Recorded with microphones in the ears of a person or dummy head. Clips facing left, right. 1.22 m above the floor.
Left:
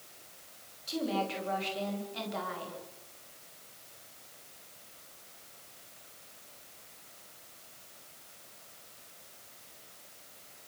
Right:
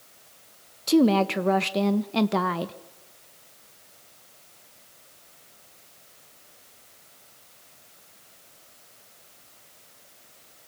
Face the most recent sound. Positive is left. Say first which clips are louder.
# right 14 dB
turn(degrees=-80)